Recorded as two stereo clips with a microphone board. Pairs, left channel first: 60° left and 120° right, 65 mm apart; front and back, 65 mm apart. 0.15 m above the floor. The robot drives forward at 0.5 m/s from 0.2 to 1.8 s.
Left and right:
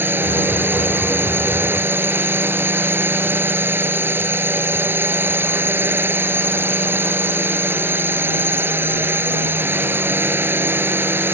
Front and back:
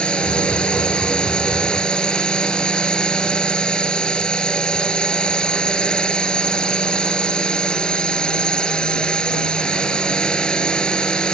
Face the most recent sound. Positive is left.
turn(degrees=-75)